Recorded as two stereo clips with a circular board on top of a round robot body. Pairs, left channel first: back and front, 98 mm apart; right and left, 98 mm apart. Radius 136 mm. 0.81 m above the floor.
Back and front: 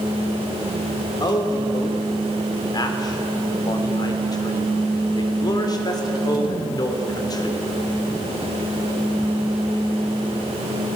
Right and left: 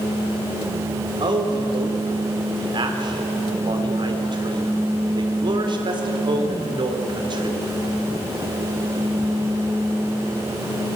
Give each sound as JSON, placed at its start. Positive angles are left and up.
{"t": 1.2, "sound": "a man speaking", "azimuth_deg": 130, "distance_m": 3.0}